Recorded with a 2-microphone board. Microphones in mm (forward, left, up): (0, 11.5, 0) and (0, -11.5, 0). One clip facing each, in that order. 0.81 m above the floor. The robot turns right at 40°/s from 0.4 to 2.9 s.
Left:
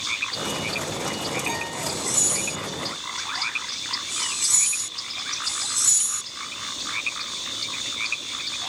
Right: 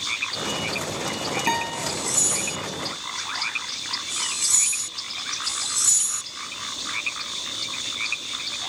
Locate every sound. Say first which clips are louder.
1.5 s a guitar: right 3 dB; 50° right (ahead or behind), 3 m; by 1.9 s 35° right (ahead or behind), 3 m